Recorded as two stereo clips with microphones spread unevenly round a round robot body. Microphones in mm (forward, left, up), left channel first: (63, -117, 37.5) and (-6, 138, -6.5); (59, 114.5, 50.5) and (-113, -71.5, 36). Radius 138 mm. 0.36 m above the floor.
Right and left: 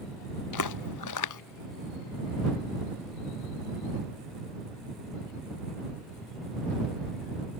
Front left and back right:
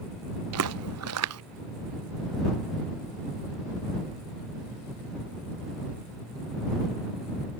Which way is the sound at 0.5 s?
100° right.